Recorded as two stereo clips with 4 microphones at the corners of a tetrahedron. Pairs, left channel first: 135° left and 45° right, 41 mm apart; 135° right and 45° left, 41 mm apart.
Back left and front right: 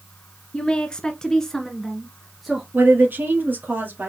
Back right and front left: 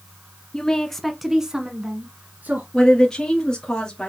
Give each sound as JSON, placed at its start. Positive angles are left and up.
{"t": 0.5, "sound": "a woman speaking", "azimuth_deg": 180, "distance_m": 1.2}
{"t": 2.7, "sound": "a woman speaking", "azimuth_deg": -60, "distance_m": 2.5}